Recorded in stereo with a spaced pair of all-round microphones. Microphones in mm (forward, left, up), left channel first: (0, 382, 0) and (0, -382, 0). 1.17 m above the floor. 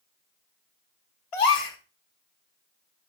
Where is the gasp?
45° left (ahead or behind), 1.0 m.